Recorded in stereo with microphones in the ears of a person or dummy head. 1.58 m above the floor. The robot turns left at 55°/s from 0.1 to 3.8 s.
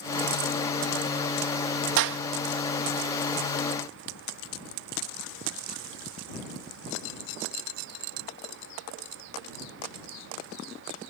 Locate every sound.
2.0 s a clap: 75° right (ahead or behind); by 2.2 s 70° right (ahead or behind)